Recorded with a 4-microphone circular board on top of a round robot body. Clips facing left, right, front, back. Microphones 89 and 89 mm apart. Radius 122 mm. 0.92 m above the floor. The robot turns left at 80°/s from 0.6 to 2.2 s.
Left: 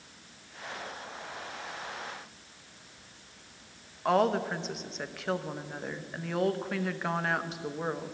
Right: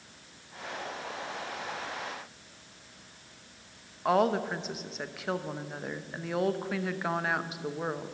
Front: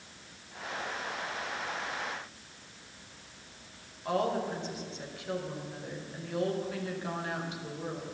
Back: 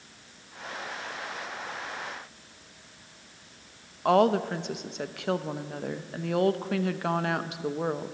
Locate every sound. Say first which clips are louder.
4.0 s a woman speaking: even, back 8 dB; straight behind, 1.0 m